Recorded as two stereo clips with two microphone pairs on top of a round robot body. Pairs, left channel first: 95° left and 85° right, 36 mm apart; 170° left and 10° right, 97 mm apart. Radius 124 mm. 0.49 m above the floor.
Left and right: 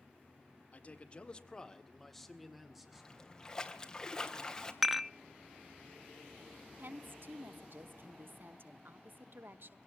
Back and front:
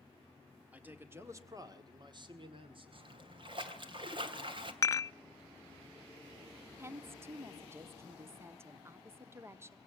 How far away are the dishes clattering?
About 0.7 m.